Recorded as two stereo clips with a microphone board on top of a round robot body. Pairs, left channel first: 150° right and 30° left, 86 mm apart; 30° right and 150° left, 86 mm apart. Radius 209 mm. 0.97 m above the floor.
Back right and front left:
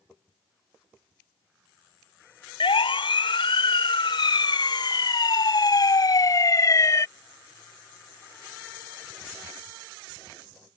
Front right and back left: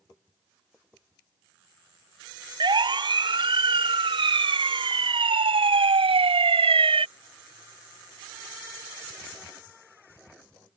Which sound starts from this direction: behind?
A siren, at 2.6 s.